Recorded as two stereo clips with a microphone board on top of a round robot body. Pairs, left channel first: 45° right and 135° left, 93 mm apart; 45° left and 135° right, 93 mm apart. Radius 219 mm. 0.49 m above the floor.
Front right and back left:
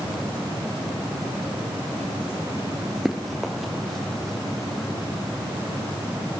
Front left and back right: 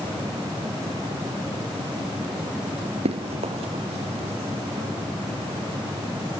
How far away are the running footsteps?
About 0.8 m.